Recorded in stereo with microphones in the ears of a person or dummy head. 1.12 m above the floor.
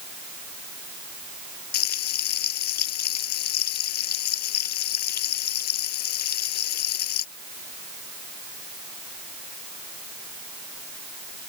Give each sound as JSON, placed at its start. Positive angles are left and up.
{"t": 1.7, "sound": "frying", "side_deg": 50}